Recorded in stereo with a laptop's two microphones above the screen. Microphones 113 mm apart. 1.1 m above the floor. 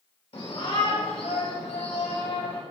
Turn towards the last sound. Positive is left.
turn(degrees=70)  # may be behind; listen again after turning